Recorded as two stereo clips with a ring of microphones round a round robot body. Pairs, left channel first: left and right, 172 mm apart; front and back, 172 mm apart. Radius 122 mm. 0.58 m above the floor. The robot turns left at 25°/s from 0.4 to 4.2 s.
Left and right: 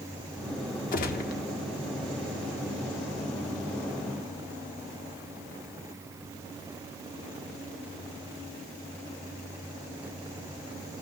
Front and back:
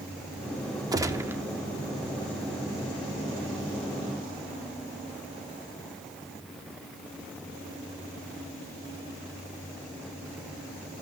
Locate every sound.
0.9 s a gunshot: 115° left, 0.9 m; by 1.4 s 105° left, 0.9 m